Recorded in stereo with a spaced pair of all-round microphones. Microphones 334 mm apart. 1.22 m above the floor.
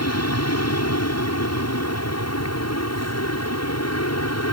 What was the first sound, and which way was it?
An aircraft, 50° left (ahead or behind).